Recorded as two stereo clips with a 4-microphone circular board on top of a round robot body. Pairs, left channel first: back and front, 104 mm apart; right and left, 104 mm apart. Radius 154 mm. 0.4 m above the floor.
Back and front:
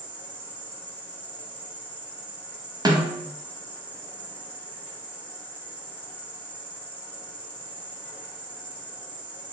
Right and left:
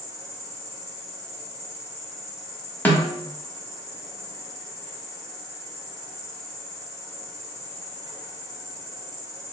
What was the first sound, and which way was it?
An insect, 120° left.